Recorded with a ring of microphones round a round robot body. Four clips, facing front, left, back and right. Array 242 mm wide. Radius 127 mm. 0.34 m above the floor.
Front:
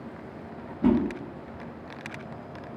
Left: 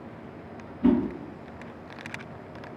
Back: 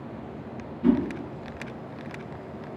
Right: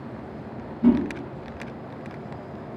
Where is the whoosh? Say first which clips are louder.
Right 3 dB, back 1 dB; 30° right, 1.4 m.